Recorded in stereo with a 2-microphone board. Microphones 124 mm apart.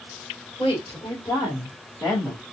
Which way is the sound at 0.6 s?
45° left (ahead or behind).